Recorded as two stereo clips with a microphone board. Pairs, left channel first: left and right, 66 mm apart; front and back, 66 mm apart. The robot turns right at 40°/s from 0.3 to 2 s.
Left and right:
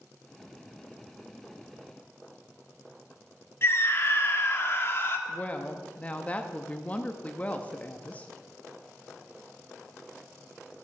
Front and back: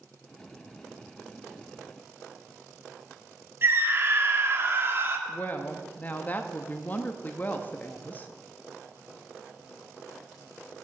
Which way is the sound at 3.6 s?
135° left.